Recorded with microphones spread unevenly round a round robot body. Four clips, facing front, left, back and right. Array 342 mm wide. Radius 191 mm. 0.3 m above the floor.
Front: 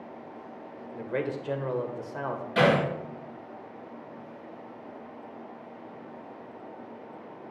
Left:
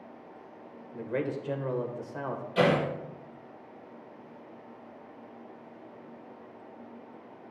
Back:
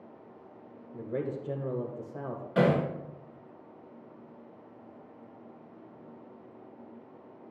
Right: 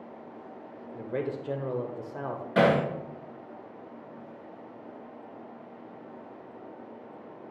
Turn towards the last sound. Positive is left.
turn(degrees=-100)